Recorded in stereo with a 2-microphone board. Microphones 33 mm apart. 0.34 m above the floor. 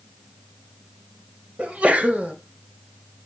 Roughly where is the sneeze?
Right.